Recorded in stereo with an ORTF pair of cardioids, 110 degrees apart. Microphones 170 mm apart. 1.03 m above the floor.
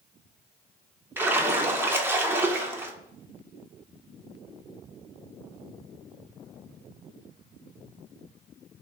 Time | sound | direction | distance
1.2 | a splash | 10° right | 0.8 m